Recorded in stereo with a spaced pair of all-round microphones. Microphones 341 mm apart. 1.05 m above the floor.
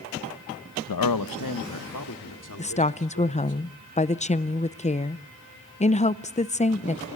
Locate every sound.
0.9 s a man speaking: 85° left, 0.6 m; by 3.6 s 60° left (ahead or behind), 3 m
2.6 s a woman speaking: 20° left (ahead or behind), 0.5 m